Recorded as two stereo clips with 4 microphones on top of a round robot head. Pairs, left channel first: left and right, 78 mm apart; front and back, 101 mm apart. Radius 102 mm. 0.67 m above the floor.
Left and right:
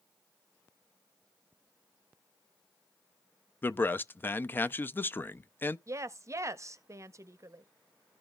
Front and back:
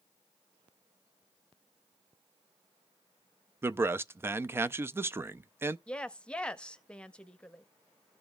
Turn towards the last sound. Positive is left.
turn(degrees=-80)